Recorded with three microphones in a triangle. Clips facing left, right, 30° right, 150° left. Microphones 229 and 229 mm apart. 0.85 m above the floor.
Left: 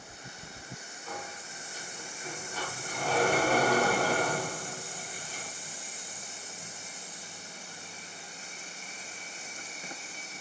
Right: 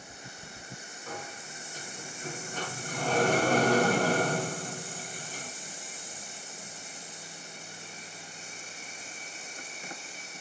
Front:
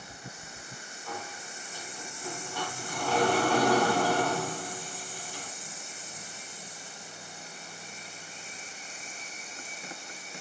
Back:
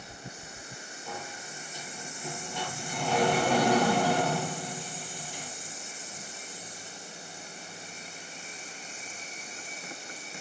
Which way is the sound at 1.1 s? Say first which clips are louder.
Right 1 dB, front 1 dB; 140° right.